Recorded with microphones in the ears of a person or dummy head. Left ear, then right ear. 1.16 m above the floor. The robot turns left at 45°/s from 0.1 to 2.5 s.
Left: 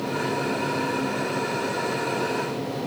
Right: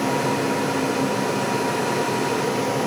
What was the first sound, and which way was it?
Only background noise.